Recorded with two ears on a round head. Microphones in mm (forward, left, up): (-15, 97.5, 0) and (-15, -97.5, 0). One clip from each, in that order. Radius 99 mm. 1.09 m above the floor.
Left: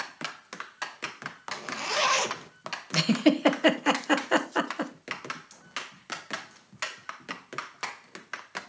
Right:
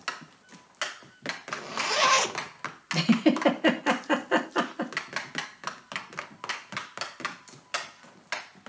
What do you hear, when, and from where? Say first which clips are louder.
1.5 s a zipper: right 1 dB; centre (ahead or behind), 0.8 m
2.9 s a giggle: even; 25° left (ahead or behind), 0.9 m